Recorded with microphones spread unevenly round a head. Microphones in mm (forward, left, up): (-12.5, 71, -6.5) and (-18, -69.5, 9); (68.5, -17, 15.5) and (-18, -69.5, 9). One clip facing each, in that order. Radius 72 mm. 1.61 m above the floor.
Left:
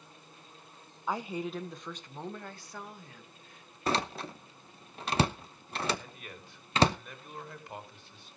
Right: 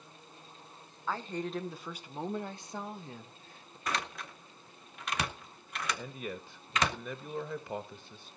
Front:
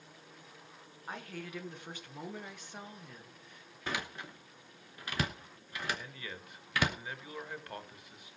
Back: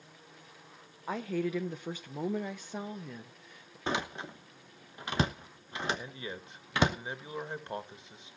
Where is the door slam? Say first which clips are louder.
Left 6 dB, back 5 dB; 140° left, 0.9 m.